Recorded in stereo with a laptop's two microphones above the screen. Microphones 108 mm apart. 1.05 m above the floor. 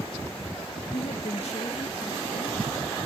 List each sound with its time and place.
0.9 s a woman speaking: 65° left (ahead or behind); by 2.6 s 70° left (ahead or behind)